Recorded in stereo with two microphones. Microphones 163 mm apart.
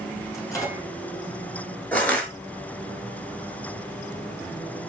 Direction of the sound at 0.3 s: 20° left (ahead or behind).